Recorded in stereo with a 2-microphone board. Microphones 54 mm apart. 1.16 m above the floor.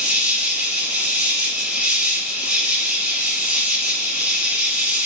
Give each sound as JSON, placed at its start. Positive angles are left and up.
{"t": 0.0, "sound": "an insect", "side_deg": -15, "distance_m": 4.5}